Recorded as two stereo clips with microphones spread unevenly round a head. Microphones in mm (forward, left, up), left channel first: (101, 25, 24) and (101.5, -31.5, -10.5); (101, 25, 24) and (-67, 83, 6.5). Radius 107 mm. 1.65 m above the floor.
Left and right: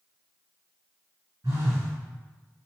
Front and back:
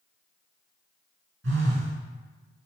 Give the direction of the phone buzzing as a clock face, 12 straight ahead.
6 o'clock.